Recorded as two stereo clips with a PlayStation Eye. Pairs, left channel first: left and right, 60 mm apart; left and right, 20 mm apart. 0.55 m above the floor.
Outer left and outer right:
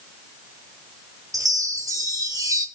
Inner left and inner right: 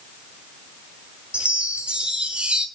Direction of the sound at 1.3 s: 70° right (ahead or behind).